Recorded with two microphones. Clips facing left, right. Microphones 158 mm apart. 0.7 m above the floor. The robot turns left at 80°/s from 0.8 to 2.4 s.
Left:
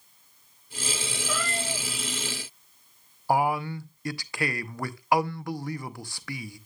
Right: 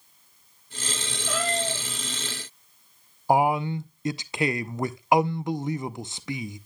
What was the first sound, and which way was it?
A cat meowing, 85° right.